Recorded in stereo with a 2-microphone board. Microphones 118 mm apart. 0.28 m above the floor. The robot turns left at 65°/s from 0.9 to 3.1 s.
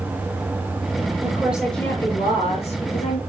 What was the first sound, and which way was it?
A woman speaking, 155° right.